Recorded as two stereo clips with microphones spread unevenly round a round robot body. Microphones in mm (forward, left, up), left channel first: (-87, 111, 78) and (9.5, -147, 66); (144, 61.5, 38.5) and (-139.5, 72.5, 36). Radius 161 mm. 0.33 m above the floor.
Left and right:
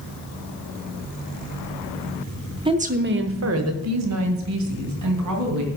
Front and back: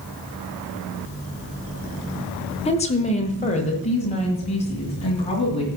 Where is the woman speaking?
35° right, 0.8 m; by 5.7 s 75° right, 3 m.